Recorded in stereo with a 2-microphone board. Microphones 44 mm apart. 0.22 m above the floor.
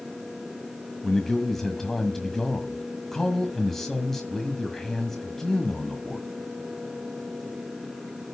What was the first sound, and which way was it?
A man speaking, 10° left (ahead or behind).